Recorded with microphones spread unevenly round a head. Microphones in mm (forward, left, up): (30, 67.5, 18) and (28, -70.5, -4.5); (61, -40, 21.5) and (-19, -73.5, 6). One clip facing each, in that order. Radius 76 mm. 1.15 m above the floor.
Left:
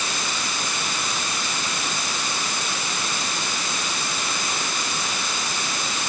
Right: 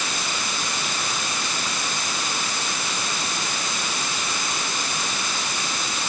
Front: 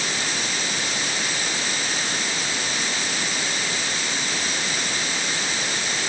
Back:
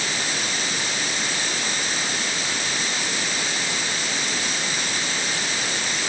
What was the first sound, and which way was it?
Only background noise.